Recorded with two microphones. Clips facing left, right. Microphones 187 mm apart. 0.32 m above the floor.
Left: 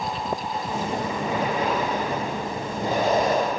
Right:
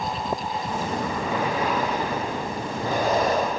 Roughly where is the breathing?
Left.